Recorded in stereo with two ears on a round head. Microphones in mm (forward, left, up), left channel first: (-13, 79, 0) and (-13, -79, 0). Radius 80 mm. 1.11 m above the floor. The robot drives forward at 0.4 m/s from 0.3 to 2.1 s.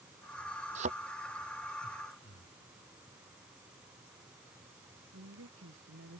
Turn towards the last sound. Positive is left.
turn(degrees=-85)